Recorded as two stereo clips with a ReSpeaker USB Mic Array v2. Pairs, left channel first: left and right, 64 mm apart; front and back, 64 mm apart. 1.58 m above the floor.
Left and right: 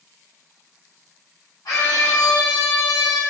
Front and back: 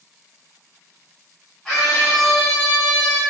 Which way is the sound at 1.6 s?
80° left.